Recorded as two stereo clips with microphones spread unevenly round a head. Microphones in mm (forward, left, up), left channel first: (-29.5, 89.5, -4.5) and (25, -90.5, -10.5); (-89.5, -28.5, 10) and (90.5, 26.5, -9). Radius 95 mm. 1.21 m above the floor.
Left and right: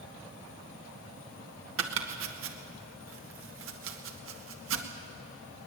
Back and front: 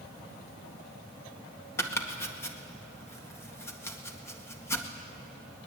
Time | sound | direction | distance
1.8 | chopping | 85° right | 1.9 m